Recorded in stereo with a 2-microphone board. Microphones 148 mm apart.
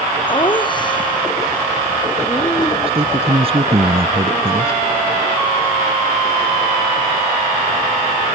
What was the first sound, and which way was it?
Laughter, 35° left (ahead or behind).